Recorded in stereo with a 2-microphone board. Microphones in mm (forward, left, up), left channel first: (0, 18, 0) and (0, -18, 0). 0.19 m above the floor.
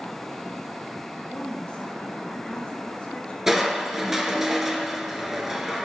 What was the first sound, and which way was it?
A woman speaking, 30° left (ahead or behind).